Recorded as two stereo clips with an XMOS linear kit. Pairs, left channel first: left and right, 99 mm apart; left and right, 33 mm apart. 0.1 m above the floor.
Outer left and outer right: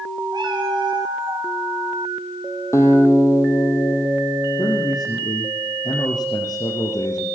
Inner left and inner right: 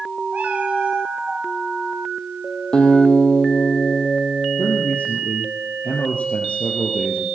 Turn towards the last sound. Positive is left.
turn(degrees=45)  # may be behind; listen again after turning